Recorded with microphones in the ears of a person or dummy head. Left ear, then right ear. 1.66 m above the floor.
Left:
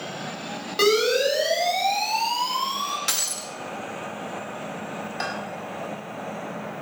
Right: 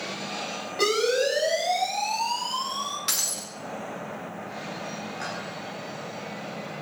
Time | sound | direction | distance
0.8 | a siren | 40° left (ahead or behind) | 8 m
3.1 | breaking glass | 15° left (ahead or behind) | 1.8 m
5.2 | a bell | 70° left (ahead or behind) | 5 m